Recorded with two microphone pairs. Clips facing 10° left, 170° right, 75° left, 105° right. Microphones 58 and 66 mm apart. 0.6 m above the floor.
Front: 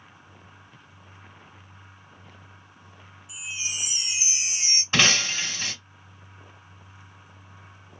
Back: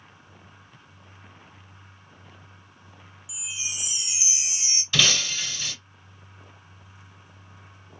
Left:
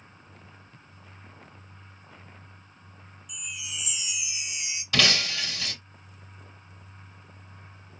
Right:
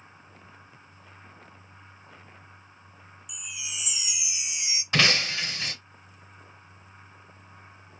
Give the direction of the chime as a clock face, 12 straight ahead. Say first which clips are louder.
Front 3 dB, left 1 dB; 1 o'clock.